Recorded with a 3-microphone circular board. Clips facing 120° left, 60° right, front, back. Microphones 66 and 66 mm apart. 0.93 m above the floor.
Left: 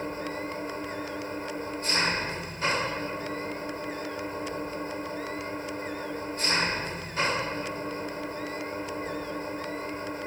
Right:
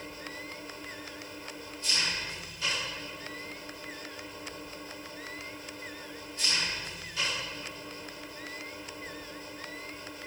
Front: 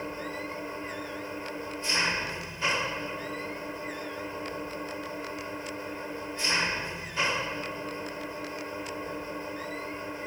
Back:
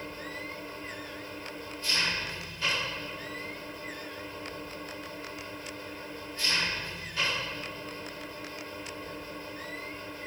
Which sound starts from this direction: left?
An engine running, at 0.0 s.